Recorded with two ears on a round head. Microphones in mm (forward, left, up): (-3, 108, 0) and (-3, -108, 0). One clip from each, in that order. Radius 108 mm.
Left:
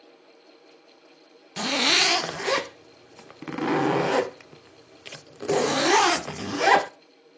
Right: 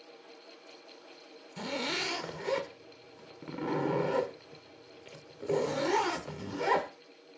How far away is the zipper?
About 0.6 m.